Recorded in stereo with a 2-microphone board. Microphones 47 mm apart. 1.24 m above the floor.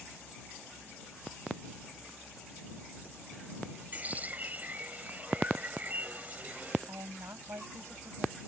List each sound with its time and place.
3.9 s a bird: 30° right (ahead or behind)
6.9 s a woman speaking: 80° right